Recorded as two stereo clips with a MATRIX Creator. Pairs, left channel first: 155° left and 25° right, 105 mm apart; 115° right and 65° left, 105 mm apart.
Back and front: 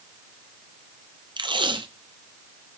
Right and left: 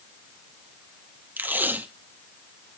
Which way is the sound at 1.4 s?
Straight ahead.